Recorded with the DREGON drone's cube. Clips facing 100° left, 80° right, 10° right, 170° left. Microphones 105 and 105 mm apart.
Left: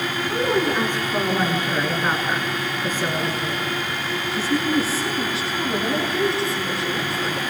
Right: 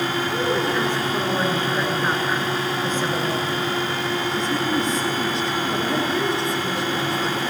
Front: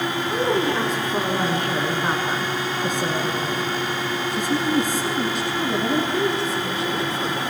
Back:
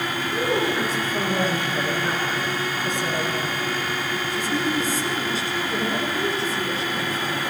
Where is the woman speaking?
25° left, 9 m; by 7.4 s 10° left, 12 m.